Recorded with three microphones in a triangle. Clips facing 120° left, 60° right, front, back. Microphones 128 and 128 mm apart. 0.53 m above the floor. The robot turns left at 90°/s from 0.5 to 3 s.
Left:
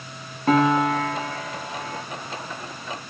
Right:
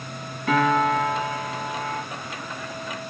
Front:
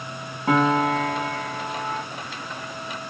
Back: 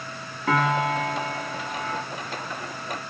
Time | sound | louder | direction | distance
0.5 | a piano | left 2 dB, front 3 dB | 75° left | 0.7 m